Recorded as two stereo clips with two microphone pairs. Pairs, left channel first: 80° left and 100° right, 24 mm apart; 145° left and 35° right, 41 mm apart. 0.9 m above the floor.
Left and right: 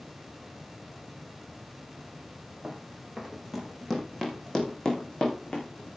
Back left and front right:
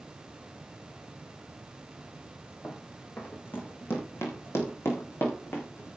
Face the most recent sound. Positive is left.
turn(degrees=115)